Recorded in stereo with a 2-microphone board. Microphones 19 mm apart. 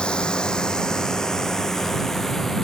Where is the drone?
55° left (ahead or behind); by 2.6 s 15° left (ahead or behind).